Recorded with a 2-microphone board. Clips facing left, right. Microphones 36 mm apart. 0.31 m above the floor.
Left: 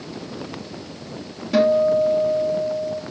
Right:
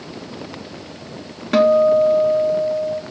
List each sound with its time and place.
1.5 s a guitar: 65° right (ahead or behind), 0.8 m